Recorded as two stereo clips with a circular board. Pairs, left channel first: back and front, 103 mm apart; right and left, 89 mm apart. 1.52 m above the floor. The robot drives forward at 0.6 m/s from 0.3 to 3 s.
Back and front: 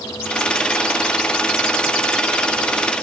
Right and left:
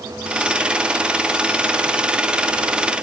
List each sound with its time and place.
Only background noise.